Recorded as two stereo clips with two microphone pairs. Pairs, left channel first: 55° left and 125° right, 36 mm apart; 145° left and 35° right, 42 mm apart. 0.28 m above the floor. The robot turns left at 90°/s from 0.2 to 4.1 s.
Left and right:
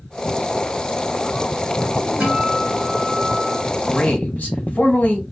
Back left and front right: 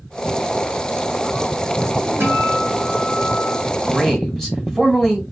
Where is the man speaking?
85° left, 1.5 m; by 5.2 s 65° left, 1.5 m.